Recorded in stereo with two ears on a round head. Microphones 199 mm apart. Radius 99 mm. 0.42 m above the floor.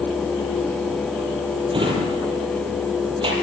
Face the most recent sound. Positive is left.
turn(degrees=-20)  # may be behind; listen again after turning